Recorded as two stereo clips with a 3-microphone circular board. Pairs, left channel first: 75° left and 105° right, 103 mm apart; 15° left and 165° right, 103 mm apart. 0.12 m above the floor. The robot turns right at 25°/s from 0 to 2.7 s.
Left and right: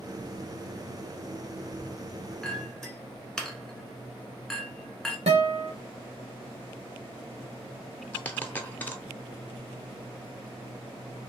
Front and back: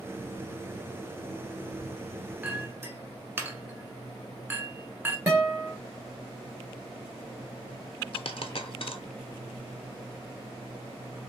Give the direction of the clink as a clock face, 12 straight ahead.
7 o'clock.